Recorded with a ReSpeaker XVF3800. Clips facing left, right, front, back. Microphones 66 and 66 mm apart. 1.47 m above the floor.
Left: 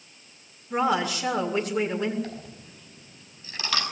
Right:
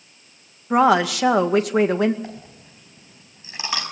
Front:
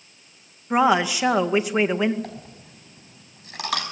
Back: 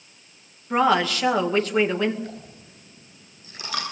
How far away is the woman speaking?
About 2 m.